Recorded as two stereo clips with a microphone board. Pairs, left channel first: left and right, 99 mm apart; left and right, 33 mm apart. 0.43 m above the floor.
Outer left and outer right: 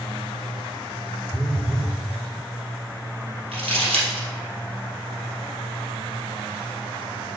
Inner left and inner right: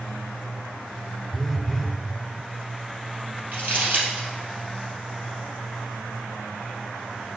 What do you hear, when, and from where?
1.3 s a phone buzzing: 5° right (ahead or behind), 0.7 m
3.5 s crumpling: 80° right, 3 m